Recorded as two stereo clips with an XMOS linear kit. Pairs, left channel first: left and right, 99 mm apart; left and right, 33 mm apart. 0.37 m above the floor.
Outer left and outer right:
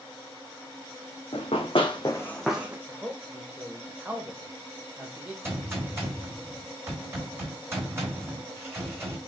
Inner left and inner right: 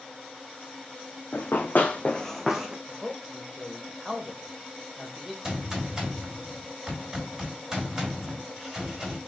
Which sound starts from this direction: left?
Running footsteps, at 1.3 s.